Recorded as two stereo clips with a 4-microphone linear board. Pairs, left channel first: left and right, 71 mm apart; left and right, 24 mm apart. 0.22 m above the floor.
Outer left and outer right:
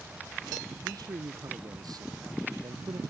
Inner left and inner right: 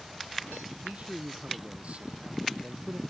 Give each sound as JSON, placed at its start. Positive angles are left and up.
{"t": 0.8, "sound": "a man speaking", "side_deg": -65}